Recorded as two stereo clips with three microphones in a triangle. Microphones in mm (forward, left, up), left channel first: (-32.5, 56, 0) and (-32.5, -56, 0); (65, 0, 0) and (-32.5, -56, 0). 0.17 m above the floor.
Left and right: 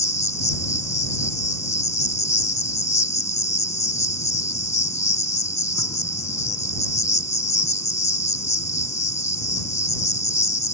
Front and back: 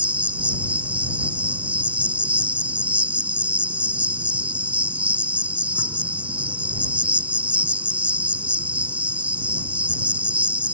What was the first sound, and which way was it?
An insect, 140° left.